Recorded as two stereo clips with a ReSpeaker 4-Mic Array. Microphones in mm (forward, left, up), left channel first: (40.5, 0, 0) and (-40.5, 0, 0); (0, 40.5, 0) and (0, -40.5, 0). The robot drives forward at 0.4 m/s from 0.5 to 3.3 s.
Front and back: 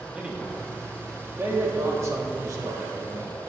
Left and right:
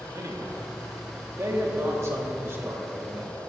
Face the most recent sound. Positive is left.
turn(degrees=-150)